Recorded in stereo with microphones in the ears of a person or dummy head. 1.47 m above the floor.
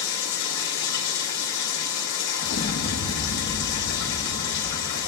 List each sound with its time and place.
0.0 s running water: 65° left (ahead or behind), 3 m
2.4 s an explosion: 55° left (ahead or behind), 1.3 m